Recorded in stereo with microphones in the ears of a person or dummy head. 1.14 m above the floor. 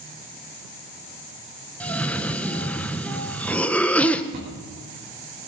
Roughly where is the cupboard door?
Right.